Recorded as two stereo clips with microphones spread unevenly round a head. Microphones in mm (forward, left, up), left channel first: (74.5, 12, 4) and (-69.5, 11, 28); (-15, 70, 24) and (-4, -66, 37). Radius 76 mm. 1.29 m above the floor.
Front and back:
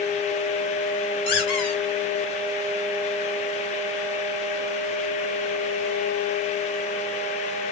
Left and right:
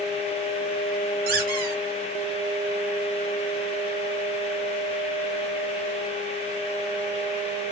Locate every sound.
1.3 s a squeak: 55° right, 4.5 m